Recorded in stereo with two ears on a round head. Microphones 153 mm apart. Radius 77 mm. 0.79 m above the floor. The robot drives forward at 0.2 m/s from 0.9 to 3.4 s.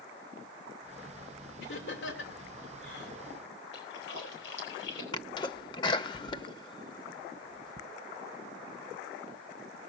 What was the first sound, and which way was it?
Laughter, 70° left (ahead or behind).